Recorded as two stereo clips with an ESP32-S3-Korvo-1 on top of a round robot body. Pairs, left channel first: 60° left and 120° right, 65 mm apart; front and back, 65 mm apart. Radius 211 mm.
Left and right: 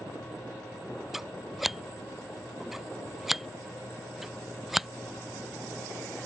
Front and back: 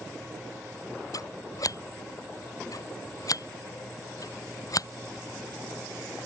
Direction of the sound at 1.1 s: 35° right.